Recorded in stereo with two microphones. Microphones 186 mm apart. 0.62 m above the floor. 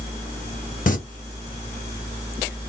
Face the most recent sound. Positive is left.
turn(degrees=45)  # may be behind; listen again after turning